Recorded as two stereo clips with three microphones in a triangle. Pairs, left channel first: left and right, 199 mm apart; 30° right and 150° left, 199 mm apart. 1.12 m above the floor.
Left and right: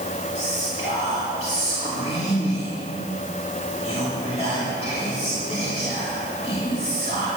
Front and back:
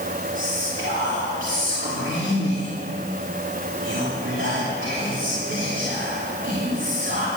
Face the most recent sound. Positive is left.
turn(degrees=150)